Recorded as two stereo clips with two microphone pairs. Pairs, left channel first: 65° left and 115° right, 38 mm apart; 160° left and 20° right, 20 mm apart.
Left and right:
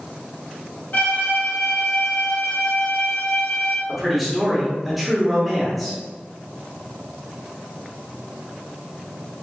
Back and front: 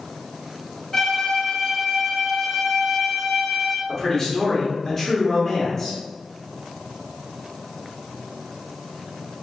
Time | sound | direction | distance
0.9 | a violin | 85° left | 0.9 m
3.9 | a man speaking | 165° left | 1.3 m